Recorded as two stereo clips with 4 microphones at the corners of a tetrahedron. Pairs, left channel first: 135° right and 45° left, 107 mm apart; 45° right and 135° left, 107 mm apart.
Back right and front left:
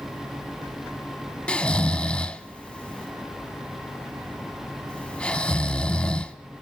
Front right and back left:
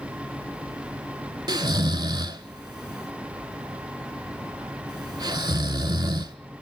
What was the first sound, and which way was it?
Snoring, 150° left.